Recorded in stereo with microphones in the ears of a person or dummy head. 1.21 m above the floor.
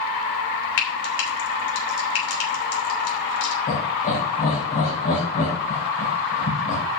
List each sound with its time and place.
0.8 s frying: 85° left, 2.5 m
3.7 s laughter: 50° left (ahead or behind), 5 m